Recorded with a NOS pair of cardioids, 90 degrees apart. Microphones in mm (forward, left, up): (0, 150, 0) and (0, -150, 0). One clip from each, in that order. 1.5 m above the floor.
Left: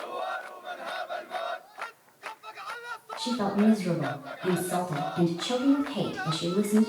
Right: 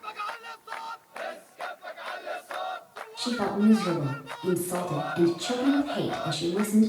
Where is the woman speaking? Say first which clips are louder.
Right 1 dB; 15° right, 1.8 m.